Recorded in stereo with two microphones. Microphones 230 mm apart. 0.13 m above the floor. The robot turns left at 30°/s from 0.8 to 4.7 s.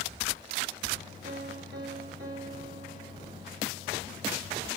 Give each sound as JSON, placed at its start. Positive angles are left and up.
{"t": 1.2, "sound": "a piano", "azimuth_deg": -50, "distance_m": 5.5}